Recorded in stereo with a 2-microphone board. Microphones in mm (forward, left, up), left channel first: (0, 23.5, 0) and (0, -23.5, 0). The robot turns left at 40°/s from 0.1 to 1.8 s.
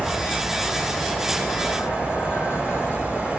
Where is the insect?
135° left, 3 m; by 3.4 s 65° left, 3 m.